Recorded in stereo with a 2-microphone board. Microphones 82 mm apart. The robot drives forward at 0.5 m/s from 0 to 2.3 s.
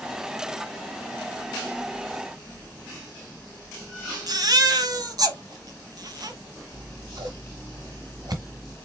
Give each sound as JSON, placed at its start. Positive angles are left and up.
{"t": 4.3, "sound": "a baby crying", "side_deg": -50, "distance_m": 0.9}
{"t": 6.7, "sound": "scissors", "side_deg": -55, "distance_m": 1.4}